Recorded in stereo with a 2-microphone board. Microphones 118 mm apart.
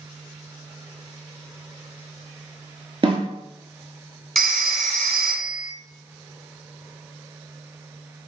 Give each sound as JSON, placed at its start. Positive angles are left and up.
{"t": 3.0, "sound": "a snare drum", "side_deg": -50, "distance_m": 1.1}
{"t": 4.3, "sound": "a phone ringing", "side_deg": 0, "distance_m": 0.7}